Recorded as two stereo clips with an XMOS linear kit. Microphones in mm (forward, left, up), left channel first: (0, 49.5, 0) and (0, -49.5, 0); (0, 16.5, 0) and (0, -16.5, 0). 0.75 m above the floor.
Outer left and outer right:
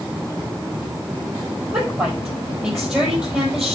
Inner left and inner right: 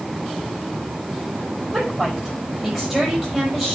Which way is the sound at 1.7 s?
15° right (ahead or behind).